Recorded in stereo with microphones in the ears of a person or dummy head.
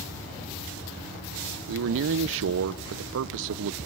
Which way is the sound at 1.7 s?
70° right (ahead or behind).